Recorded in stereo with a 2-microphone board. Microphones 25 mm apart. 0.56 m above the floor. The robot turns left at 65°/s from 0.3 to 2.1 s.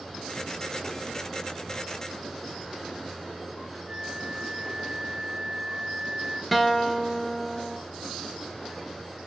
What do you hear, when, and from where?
3.9 s a flute: 35° right (ahead or behind), 1.0 m
6.5 s a guitar: centre (ahead or behind), 0.9 m